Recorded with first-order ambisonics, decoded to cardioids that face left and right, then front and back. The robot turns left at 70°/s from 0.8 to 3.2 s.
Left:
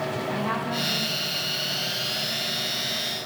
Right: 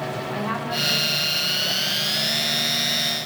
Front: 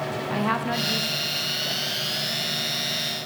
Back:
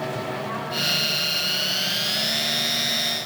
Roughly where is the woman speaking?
Ahead.